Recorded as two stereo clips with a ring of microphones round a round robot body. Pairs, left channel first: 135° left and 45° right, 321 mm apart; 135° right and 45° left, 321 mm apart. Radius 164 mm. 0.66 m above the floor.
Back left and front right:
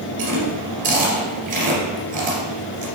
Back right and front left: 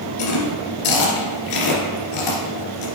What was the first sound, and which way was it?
Chewing, 110° right.